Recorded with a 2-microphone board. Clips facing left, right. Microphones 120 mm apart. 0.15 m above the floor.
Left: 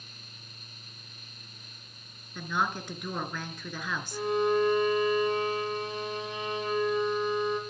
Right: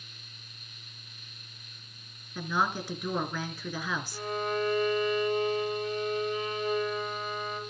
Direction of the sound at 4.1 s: 75° left (ahead or behind).